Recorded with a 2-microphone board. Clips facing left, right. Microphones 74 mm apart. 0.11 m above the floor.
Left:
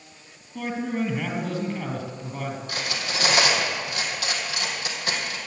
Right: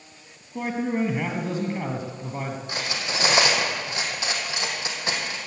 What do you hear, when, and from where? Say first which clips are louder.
0.6 s a man speaking: right 2 dB; 25° right (ahead or behind), 2.5 m
2.7 s cutlery clinking: even; 25° right (ahead or behind), 2.5 m